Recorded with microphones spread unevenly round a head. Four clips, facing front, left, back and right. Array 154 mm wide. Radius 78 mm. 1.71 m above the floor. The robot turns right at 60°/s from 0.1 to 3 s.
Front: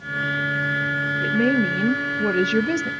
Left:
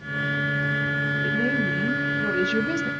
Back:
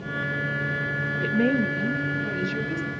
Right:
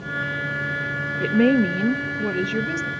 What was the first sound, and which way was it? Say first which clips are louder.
A woman speaking: right 10 dB, front 2 dB; 85° right.